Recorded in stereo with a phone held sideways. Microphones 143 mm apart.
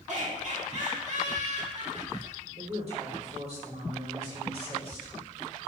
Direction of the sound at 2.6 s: 50° right (ahead or behind).